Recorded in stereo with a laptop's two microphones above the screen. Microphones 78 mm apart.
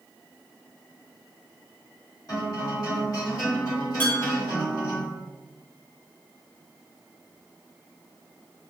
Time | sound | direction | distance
2.3 | a guitar | 50° left (ahead or behind) | 1.8 m
4.0 | dishes clattering | 25° left (ahead or behind) | 1.1 m